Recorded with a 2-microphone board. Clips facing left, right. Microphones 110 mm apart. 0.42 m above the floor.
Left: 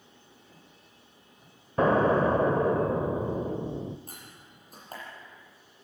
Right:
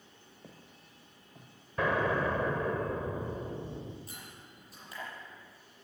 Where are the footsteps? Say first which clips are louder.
Right 2 dB; 80° right, 5.5 m.